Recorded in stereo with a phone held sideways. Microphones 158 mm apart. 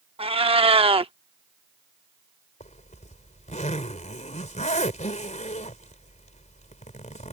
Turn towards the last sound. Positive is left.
turn(degrees=50)  # may be behind; listen again after turning